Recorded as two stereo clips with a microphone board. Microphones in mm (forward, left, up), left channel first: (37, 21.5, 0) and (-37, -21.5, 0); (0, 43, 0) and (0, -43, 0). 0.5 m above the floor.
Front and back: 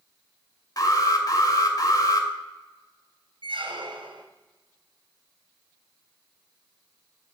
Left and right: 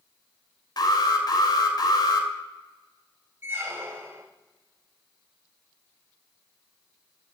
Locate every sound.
0.8 s an alarm: 65° left, 2 m
3.4 s a squeak: 155° right, 2 m